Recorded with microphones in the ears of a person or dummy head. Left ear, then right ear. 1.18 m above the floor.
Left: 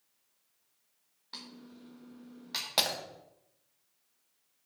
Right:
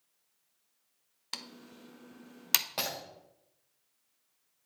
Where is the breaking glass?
30° left (ahead or behind), 1.4 m.